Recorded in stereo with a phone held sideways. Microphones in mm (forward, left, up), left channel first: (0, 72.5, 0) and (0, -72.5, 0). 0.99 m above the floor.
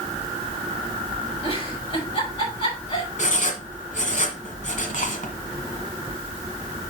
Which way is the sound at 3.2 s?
60° left (ahead or behind).